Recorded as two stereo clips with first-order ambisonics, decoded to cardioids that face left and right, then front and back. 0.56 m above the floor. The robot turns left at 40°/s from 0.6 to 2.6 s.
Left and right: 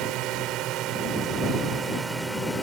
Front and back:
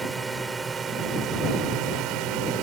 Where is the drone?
105° right; by 2.6 s 175° left.